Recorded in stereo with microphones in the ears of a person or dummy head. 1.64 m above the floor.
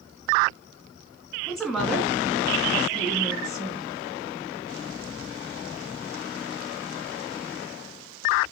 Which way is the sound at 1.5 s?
Centre (ahead or behind).